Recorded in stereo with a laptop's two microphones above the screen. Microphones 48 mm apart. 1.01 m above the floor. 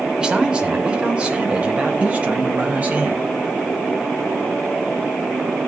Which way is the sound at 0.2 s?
20° right (ahead or behind).